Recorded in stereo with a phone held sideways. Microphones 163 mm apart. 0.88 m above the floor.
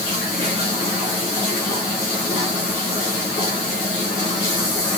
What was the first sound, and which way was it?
Only background noise.